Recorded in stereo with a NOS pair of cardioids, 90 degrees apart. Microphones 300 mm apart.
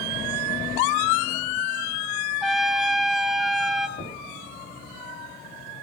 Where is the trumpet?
Straight ahead, 1.6 m.